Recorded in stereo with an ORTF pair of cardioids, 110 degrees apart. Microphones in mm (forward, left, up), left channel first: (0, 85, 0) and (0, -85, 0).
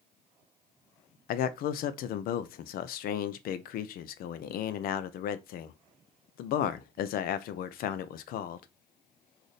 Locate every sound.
1.3 s a man speaking: 65° left, 0.6 m